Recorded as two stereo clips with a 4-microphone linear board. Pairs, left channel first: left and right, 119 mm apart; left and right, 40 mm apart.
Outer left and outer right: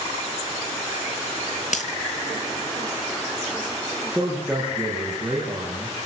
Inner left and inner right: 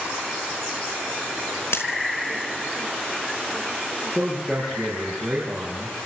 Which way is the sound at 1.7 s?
75° left (ahead or behind).